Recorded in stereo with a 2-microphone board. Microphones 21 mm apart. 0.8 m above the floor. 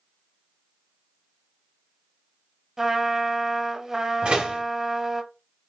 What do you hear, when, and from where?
2.8 s a trumpet: 20° right (ahead or behind), 0.8 m
4.2 s a door slam: 55° right (ahead or behind), 1.6 m